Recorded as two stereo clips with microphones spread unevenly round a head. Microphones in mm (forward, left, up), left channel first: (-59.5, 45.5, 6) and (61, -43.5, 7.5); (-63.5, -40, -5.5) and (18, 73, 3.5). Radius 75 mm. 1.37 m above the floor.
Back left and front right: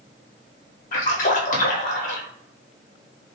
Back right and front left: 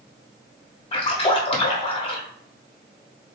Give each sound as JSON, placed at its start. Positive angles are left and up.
{"t": 0.9, "sound": "a splash", "azimuth_deg": -175, "distance_m": 1.1}